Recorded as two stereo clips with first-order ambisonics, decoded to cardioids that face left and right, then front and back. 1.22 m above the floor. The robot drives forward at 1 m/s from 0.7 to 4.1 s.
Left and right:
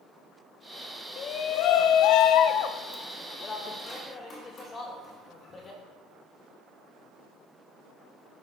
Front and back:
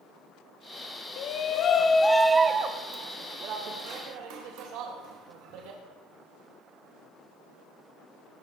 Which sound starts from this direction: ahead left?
A shout, at 1.2 s.